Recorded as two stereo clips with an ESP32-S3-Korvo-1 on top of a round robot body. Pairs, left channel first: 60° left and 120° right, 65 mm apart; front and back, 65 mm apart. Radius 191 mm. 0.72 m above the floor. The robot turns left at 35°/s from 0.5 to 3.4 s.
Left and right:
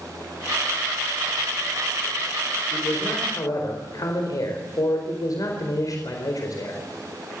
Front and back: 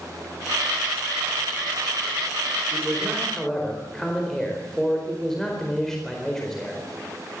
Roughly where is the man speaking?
Left.